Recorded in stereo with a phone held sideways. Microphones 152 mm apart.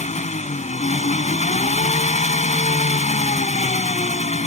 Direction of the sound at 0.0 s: 50° left (ahead or behind).